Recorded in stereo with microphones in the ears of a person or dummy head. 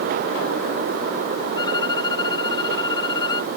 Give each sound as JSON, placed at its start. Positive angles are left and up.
{"t": 1.6, "sound": "a violin", "side_deg": 30}